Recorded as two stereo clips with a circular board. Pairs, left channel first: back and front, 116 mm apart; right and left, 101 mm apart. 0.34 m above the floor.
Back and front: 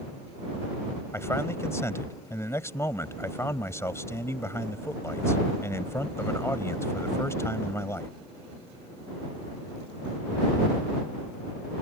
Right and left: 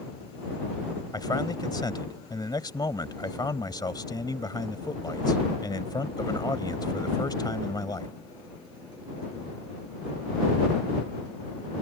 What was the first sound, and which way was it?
A man speaking, 120° right.